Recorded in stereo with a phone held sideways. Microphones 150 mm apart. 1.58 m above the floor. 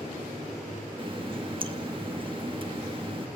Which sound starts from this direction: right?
A running tap, at 1.0 s.